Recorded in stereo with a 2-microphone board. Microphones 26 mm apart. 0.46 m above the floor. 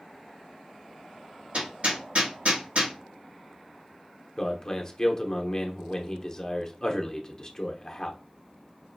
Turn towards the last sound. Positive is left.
turn(degrees=30)  # may be behind; listen again after turning